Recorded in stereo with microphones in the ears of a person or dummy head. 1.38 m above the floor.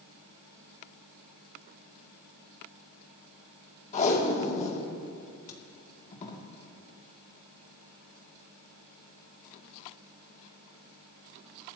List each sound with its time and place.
3.9 s tape being pulled: 40° left (ahead or behind), 2.5 m